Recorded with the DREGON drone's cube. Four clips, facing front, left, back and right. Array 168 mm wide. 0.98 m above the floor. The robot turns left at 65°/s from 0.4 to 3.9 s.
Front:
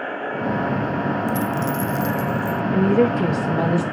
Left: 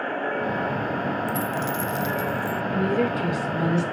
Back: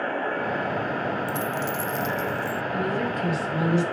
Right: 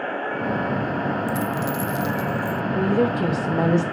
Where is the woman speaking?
Straight ahead, 4.5 m; by 3.8 s 75° right, 4.5 m.